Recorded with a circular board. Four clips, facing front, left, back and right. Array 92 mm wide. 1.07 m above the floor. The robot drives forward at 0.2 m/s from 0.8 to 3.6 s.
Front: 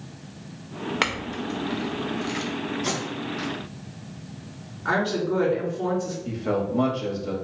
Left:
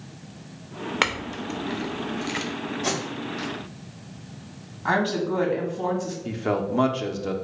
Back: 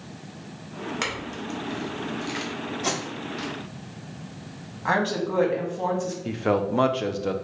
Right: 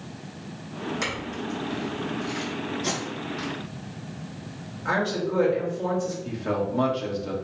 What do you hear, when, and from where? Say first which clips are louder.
1.0 s a clink: left 3 dB, front 4 dB; 65° left, 0.6 m; by 2.5 s 100° left, 0.5 m
2.8 s tape being pulled: left 2 dB, front 1 dB; 150° left, 1.7 m; by 3.5 s 155° left, 1.8 m
4.8 s a woman speaking: left 2 dB, even; 145° left, 1.4 m
6.2 s a man speaking: left 2 dB, back 4 dB; 155° left, 0.5 m